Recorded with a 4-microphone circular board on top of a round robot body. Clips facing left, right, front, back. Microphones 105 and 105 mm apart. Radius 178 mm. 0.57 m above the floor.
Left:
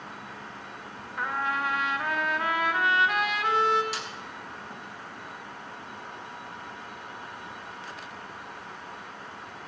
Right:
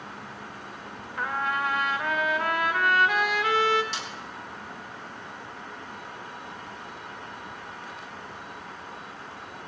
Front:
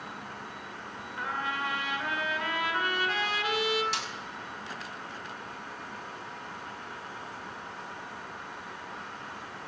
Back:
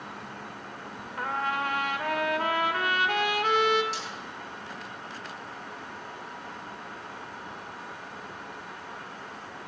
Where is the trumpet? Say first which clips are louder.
Right 1 dB, back 4 dB; straight behind, 1.9 m.